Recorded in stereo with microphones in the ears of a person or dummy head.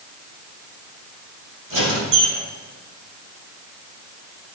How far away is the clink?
I don't hear a clink.